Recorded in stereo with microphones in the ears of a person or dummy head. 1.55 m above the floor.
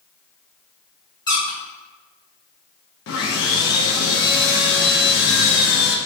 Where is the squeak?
25° left (ahead or behind), 1.7 m.